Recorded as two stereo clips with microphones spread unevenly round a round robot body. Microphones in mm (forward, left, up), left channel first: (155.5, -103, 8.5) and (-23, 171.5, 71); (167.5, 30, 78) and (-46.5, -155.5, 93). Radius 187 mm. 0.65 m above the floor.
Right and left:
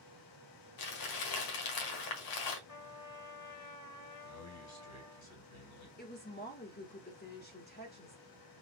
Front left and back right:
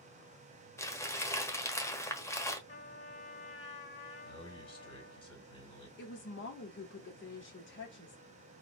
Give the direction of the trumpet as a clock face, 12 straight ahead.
1 o'clock.